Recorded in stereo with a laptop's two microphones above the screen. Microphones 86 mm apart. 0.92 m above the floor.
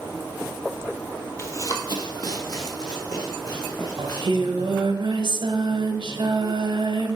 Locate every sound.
1.4 s running footsteps: 35° left (ahead or behind), 1.1 m; by 4.9 s 45° left (ahead or behind), 4.5 m
4.0 s singing: 65° right (ahead or behind), 1.3 m